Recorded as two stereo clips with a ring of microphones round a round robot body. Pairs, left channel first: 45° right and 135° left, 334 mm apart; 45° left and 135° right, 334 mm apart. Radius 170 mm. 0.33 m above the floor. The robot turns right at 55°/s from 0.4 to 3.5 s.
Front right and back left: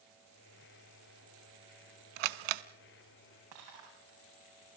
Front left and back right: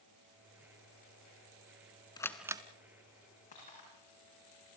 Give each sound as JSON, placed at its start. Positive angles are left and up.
{"t": 2.2, "sound": "a camera shutter", "azimuth_deg": 125, "distance_m": 0.9}
{"t": 3.5, "sound": "breaking glass", "azimuth_deg": 115, "distance_m": 9.0}